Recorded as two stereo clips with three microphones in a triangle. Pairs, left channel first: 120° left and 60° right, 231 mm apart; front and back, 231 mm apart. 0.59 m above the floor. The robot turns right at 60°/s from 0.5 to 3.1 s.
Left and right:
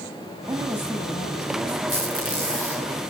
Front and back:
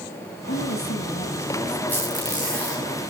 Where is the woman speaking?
25° left, 4 m; by 1.8 s 100° left, 4 m.